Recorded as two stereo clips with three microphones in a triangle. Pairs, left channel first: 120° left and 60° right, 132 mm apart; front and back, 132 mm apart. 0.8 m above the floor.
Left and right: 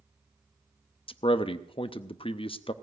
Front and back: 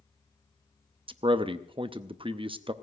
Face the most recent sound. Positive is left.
turn(degrees=150)